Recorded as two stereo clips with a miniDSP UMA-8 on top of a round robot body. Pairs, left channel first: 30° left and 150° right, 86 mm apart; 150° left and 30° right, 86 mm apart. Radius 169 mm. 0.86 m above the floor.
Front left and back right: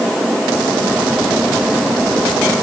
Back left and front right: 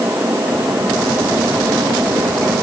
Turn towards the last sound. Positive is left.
No sound to turn to.